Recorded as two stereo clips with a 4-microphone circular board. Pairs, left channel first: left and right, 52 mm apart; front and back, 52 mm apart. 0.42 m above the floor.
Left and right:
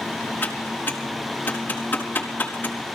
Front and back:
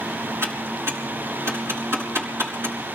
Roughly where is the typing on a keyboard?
Behind left.